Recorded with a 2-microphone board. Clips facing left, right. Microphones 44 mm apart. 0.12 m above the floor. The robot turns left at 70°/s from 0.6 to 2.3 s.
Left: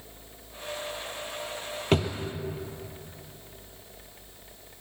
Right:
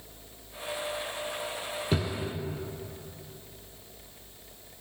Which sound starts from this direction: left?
A drawer, at 1.9 s.